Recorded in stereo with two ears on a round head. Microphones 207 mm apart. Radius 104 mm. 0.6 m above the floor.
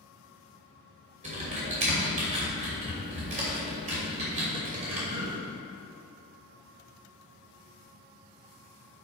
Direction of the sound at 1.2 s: 35° right (ahead or behind).